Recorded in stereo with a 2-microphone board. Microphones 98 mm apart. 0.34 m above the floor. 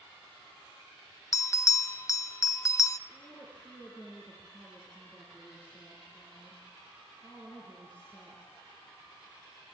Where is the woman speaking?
15° left (ahead or behind), 5.5 m.